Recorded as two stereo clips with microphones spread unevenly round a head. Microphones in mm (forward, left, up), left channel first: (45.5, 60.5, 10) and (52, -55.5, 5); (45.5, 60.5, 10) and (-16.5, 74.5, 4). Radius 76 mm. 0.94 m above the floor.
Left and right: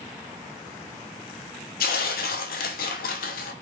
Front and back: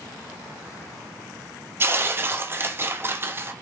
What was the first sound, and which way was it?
Tearing paper, 105° left.